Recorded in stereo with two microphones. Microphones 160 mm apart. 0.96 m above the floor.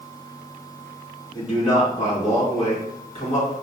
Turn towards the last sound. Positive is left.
turn(degrees=45)  # may be behind; listen again after turning